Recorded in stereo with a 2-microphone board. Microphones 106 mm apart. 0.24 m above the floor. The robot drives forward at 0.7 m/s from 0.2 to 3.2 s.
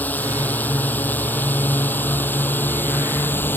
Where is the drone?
15° left (ahead or behind); by 3.6 s 20° left (ahead or behind).